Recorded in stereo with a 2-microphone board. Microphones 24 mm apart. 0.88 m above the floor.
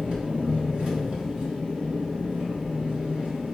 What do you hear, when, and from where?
0.0 s an engine running: 55° right (ahead or behind), 0.9 m